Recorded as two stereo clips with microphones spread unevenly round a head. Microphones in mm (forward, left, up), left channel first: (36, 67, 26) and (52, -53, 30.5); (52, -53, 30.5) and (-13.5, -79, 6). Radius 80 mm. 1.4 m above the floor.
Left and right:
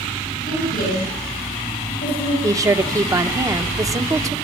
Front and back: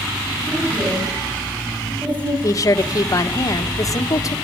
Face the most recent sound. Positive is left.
turn(degrees=-20)